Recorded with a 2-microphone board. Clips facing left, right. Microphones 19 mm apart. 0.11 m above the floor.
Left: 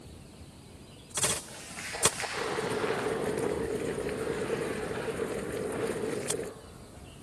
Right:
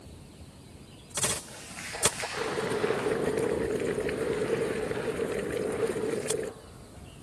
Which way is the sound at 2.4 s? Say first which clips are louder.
Right 3 dB; 25° right (ahead or behind).